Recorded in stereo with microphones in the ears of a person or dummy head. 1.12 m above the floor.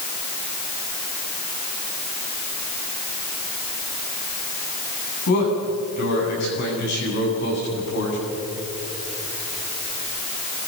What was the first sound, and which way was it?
A man speaking, 60° left (ahead or behind).